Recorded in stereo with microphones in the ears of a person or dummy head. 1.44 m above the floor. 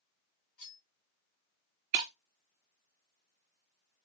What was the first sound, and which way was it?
Cutlery clinking, 50° left (ahead or behind).